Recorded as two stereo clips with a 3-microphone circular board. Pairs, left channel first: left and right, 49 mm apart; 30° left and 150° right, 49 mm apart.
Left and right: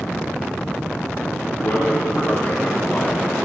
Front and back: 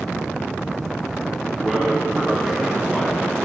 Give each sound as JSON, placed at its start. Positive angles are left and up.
{"t": 1.6, "sound": "a man speaking", "azimuth_deg": 120, "distance_m": 1.3}